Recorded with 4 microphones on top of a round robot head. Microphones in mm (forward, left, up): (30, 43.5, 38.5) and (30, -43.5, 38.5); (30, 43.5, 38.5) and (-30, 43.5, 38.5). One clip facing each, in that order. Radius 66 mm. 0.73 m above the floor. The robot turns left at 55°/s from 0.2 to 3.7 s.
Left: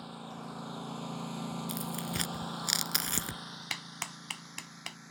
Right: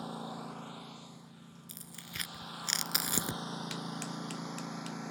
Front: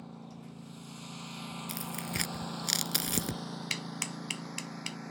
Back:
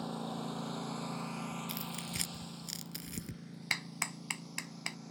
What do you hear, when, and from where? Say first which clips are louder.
0.0 s a lawn mower: right 3 dB, back 8 dB; 155° right; by 5.1 s 65° right
1.7 s tearing paper: left 14 dB, front 4 dB; 65° left; by 3.4 s 30° right
3.7 s a clap: right 4 dB, back 5 dB; 135° left